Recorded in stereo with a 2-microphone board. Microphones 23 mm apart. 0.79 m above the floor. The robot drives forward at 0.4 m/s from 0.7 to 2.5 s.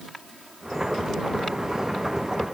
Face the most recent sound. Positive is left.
No sound to turn to.